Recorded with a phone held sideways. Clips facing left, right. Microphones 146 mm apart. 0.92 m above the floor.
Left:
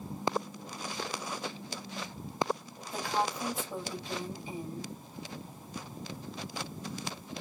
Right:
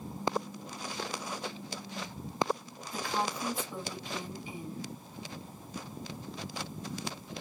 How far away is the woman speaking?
About 6 m.